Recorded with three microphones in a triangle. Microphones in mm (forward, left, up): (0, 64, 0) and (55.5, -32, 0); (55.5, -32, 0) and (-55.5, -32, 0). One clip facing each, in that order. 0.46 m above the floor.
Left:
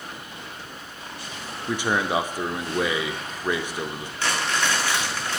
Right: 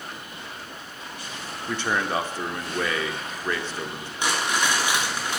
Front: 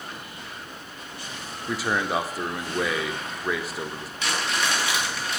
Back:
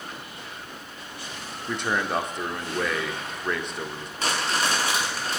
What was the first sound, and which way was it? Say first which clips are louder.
A man speaking: left 2 dB, front 1 dB; 75° left.